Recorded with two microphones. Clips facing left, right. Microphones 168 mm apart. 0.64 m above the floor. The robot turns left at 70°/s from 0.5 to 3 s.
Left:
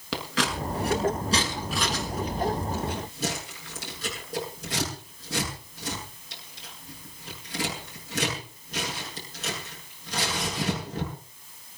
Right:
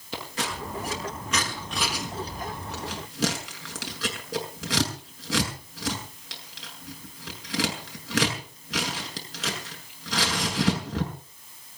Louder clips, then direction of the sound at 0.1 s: Left 4 dB; 85° left.